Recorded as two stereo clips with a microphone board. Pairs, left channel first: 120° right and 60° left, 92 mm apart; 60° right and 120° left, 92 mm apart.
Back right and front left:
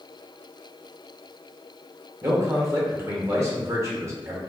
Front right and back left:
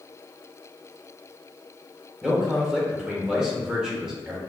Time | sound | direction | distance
2.2 | a man speaking | 45° left | 1.2 m